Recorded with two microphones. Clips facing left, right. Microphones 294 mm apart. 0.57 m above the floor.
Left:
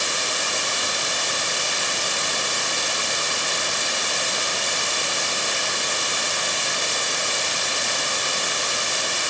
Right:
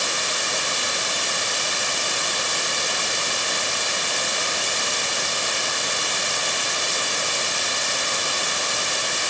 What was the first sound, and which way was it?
Only background noise.